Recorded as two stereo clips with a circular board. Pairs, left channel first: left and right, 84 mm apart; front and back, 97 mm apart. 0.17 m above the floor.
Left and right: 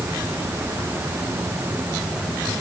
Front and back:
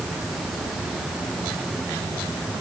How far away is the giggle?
No giggle in this recording.